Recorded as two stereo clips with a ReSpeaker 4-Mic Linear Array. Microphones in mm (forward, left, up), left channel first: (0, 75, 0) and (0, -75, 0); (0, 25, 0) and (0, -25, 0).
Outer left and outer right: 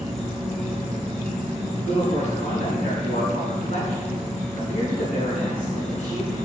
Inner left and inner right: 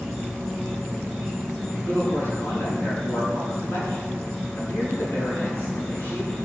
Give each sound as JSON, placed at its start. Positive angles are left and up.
{"t": 0.0, "sound": "an insect", "side_deg": 5, "distance_m": 6.5}
{"t": 1.8, "sound": "a man speaking", "side_deg": 50, "distance_m": 6.5}